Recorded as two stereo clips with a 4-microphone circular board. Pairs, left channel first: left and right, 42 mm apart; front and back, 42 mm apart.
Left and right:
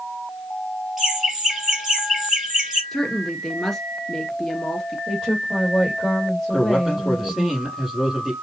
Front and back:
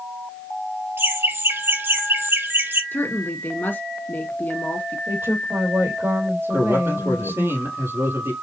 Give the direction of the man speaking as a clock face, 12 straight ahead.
6 o'clock.